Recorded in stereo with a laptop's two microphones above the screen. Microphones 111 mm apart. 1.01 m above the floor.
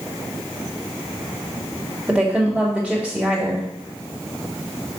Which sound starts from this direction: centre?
A woman speaking, at 2.1 s.